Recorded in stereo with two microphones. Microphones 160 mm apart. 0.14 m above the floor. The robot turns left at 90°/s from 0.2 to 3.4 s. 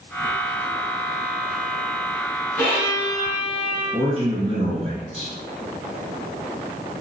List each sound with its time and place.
2.6 s a violin: 15° left, 1.9 m; by 4.1 s 60° right, 1.9 m
3.9 s a man speaking: 40° right (ahead or behind), 1.9 m